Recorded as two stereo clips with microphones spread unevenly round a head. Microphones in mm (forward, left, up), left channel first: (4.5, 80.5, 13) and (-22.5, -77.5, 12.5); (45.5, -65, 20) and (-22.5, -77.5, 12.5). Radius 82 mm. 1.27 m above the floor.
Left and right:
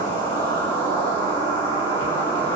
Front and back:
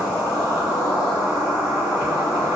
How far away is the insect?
About 1.3 m.